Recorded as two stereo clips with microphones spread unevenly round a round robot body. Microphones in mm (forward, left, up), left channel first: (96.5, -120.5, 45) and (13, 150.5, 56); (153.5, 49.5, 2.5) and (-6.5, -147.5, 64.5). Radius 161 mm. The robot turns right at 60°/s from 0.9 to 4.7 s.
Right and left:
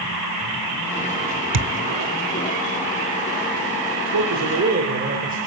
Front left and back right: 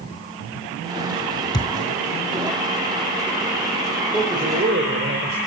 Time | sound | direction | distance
1.5 | a thud | 135° left | 0.9 m
4.1 | a man speaking | 135° left | 4 m